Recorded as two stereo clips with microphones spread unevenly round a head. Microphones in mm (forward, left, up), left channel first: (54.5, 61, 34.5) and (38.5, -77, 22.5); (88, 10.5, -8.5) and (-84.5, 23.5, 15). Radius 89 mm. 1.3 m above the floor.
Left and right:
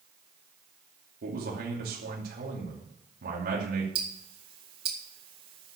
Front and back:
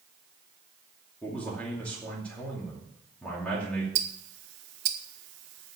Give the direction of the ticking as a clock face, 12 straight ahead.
5 o'clock.